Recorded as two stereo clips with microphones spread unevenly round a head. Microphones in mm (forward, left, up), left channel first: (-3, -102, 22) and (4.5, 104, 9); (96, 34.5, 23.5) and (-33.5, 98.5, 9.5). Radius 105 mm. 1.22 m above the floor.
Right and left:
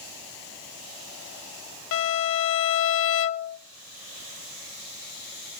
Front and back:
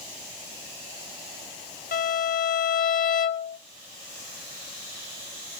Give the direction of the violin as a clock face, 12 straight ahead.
2 o'clock.